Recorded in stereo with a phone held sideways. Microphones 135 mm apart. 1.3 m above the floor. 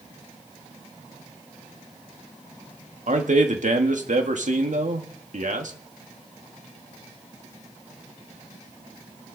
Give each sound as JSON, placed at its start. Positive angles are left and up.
{"t": 3.1, "sound": "a man speaking", "side_deg": -65, "distance_m": 1.9}